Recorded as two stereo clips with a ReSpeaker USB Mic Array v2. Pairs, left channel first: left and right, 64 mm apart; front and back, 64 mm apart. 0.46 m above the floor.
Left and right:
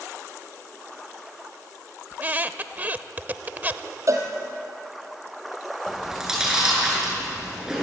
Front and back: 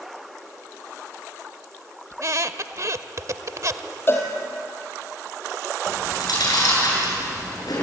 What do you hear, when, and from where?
2.1 s a squeak: 150° right, 0.8 m
4.1 s a cowbell: 55° right, 2.5 m
5.9 s chewing: 10° right, 8.5 m